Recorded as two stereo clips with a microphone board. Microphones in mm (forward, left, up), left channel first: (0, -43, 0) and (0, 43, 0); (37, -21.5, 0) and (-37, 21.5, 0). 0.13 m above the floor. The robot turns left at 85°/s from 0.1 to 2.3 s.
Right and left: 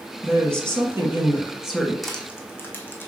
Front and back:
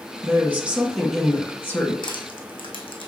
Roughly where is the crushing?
Ahead.